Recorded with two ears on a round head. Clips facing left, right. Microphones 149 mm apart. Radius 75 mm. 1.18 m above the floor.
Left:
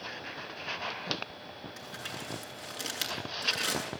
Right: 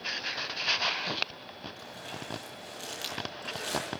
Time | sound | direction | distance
1.8 | crumpling | 70° left (ahead or behind) | 8 m